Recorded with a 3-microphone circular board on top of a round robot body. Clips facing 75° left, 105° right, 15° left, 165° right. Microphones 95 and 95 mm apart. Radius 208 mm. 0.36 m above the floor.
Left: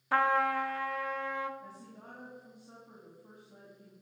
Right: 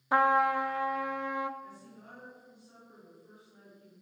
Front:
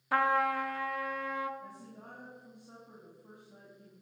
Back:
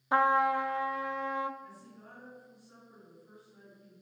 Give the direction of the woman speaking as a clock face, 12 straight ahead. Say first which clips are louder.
Even, front 2 dB; 11 o'clock.